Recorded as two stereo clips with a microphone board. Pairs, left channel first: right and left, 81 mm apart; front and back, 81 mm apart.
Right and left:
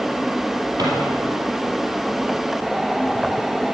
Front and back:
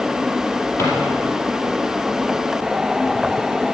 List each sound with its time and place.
0.8 s a drawer: 50° left, 4.5 m